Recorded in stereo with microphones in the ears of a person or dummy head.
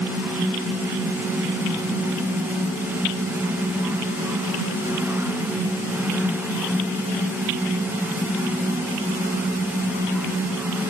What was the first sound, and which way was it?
Only background noise.